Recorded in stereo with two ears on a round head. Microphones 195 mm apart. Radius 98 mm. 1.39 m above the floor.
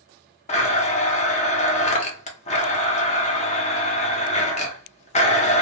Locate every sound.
0.5 s a blender: 30° left (ahead or behind), 0.7 m